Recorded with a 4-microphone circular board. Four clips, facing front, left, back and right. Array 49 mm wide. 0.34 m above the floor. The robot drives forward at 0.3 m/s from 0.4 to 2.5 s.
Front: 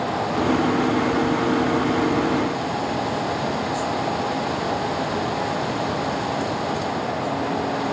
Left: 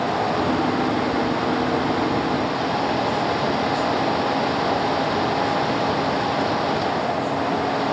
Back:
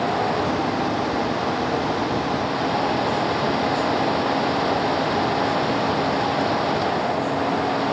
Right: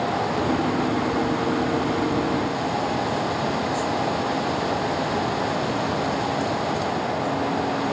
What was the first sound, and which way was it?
Only background noise.